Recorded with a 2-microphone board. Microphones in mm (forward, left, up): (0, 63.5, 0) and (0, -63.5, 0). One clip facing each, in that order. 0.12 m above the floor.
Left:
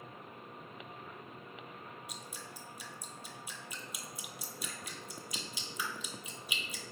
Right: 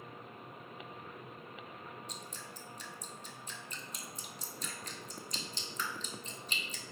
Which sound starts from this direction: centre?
Dripping, at 2.1 s.